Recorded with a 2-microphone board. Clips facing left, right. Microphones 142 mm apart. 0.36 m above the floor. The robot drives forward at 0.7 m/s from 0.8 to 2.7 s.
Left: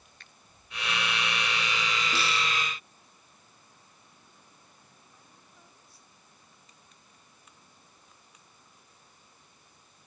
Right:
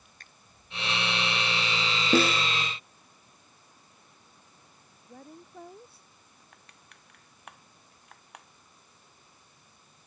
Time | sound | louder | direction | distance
0.2 | a finger snap | right 1 dB | 45° right (ahead or behind) | ?
2.1 | a snare drum | right 12 dB | 50° right (ahead or behind) | ?
5.1 | a woman speaking | right 12 dB | 60° right (ahead or behind) | ?
6.5 | crushing | right 2 dB | 70° right (ahead or behind) | ?